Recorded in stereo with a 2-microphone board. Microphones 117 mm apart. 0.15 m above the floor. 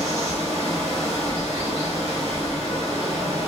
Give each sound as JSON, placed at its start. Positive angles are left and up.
{"t": 0.0, "sound": "running water", "side_deg": -25, "distance_m": 1.6}